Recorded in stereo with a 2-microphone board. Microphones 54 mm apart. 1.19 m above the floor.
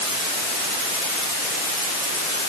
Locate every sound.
Only background noise.